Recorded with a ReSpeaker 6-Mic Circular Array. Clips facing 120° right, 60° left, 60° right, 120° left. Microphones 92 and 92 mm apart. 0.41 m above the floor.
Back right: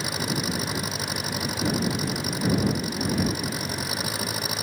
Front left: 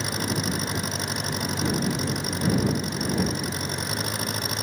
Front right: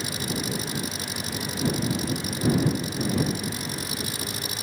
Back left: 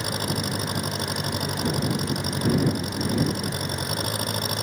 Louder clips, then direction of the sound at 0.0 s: Front left 1 dB, back left 2 dB; 155° left.